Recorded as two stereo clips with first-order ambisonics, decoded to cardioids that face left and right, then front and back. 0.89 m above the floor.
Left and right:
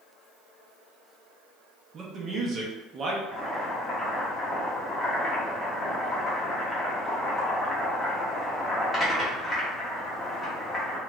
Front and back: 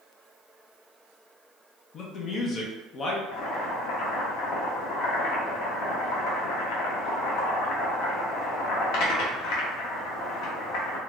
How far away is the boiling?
About 0.9 m.